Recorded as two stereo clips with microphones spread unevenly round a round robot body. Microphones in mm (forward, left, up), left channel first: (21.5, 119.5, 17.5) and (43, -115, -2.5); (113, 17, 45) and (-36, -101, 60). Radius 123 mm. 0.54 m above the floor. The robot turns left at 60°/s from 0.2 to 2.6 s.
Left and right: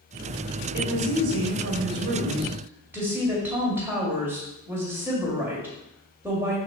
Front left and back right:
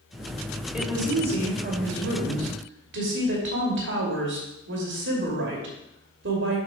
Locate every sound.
0.7 s a woman speaking: 55° right, 2.5 m; by 6.6 s 165° right, 2.5 m